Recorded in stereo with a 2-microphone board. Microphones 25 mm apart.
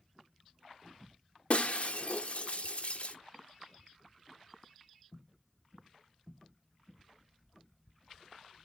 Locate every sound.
1.5 s breaking glass: 50° left (ahead or behind), 0.7 m